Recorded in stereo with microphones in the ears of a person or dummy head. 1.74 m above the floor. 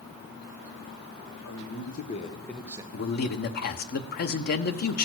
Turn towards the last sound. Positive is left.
turn(degrees=55)  # may be behind; listen again after turning